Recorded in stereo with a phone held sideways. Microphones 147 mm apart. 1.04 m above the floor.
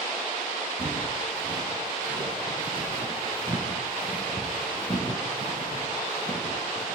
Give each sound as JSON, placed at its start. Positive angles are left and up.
{"t": 0.8, "sound": "footsteps", "side_deg": -75, "distance_m": 4.0}